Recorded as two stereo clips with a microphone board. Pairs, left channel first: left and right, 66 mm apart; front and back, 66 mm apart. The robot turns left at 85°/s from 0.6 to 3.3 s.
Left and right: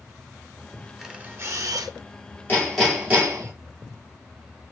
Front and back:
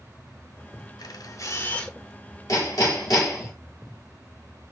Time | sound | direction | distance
1.0 | a camera shutter | 5° right | 0.9 m
2.5 | hammering | 30° left | 4 m